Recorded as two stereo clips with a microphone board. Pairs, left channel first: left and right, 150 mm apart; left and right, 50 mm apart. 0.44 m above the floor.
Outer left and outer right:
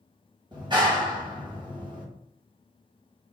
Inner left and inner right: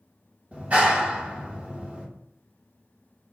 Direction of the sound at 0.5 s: 30° right (ahead or behind).